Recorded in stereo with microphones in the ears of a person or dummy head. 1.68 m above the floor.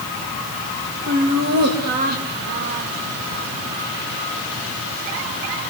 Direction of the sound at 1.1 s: 65° right (ahead or behind).